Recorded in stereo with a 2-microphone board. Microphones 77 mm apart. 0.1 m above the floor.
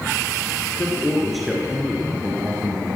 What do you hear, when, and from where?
0.8 s a man speaking: 15° left (ahead or behind), 2 m; by 3.0 s 45° right (ahead or behind), 2.5 m